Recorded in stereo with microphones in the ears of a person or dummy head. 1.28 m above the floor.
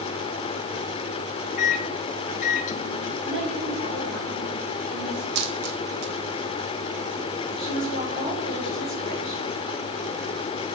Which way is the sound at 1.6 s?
40° left (ahead or behind).